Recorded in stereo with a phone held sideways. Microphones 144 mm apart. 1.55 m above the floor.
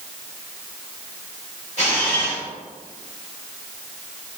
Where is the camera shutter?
50° left (ahead or behind), 1.7 m.